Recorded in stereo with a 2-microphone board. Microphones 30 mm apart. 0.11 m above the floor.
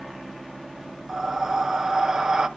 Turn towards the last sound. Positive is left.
turn(degrees=-25)  # may be behind; listen again after turning